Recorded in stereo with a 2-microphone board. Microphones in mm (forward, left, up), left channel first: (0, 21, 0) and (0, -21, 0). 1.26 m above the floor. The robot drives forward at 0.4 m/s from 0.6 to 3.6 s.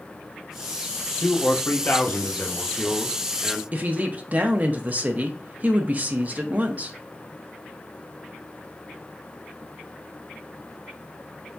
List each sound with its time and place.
1.2 s a man speaking: 65° left (ahead or behind), 0.7 m; by 3.6 s 30° left (ahead or behind), 1.4 m
3.7 s a woman speaking: 40° right (ahead or behind), 0.8 m